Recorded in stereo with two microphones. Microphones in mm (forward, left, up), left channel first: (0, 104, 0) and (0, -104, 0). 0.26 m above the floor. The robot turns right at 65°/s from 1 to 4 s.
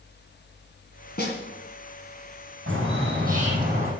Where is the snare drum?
55° left (ahead or behind), 2 m; by 1.4 s 60° left (ahead or behind), 2 m.